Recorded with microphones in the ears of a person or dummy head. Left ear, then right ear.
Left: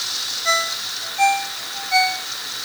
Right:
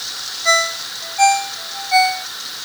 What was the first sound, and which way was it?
A ringtone, 20° right (ahead or behind).